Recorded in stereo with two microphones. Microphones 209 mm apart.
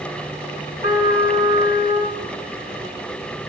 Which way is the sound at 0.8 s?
40° right (ahead or behind).